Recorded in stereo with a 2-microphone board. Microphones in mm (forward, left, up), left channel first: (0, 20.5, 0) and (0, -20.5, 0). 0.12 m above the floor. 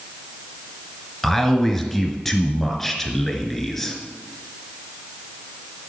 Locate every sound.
1.2 s a man speaking: 5° left (ahead or behind), 1.5 m